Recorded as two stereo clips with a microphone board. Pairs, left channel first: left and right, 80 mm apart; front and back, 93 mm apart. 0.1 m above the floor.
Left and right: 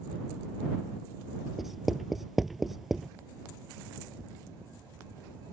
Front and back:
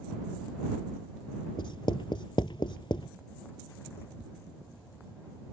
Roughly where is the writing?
Ahead.